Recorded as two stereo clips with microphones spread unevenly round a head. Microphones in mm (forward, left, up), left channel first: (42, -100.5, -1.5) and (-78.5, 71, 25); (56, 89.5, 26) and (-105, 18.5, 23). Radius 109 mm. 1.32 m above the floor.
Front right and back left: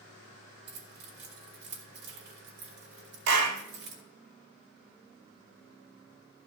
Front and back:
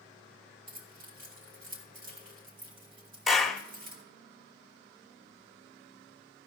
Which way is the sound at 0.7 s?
165° left.